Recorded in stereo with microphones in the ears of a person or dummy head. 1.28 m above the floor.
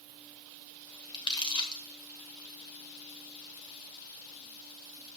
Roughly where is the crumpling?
Left.